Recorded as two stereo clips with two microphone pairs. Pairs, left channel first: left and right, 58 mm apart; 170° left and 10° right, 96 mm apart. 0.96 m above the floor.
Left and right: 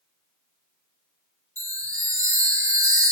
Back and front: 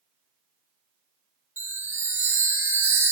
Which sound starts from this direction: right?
A chime, at 1.6 s.